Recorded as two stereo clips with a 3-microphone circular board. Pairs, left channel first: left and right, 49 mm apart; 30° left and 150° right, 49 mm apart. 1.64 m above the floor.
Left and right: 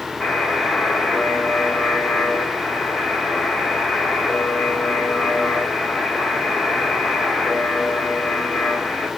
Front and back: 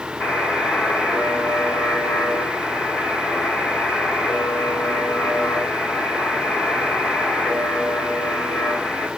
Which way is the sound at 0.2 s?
5° left.